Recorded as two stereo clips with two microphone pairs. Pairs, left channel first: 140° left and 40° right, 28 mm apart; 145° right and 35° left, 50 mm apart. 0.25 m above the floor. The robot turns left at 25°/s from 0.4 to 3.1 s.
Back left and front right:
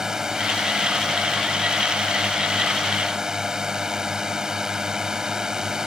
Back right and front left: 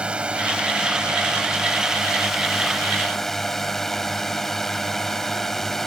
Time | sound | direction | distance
0.0 | a drone | 5° right | ?